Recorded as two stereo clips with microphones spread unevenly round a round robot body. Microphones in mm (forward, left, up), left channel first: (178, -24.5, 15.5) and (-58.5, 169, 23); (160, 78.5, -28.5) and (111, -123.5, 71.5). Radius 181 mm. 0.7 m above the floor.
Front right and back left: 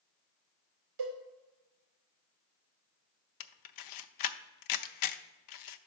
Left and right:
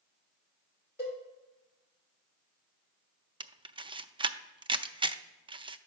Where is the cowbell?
165° left, 2.5 m.